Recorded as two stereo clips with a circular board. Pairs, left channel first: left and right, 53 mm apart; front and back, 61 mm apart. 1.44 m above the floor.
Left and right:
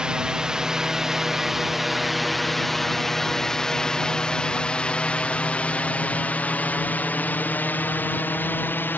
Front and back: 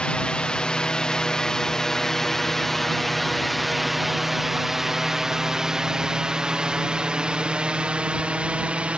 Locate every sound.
0.0 s a drone: 45° right; by 9.0 s 115° left